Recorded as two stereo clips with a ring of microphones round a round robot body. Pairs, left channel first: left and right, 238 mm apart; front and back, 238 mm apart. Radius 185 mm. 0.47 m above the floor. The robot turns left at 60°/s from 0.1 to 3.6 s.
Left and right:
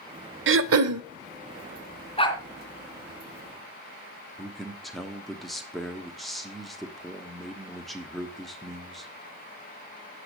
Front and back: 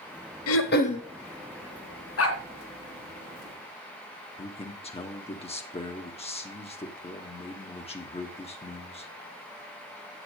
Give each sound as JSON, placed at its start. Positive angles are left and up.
{"t": 0.5, "sound": "throat clearing", "azimuth_deg": -45, "distance_m": 0.5}
{"t": 2.2, "sound": "a dog barking", "azimuth_deg": 25, "distance_m": 2.5}
{"t": 4.4, "sound": "a man speaking", "azimuth_deg": 0, "distance_m": 1.4}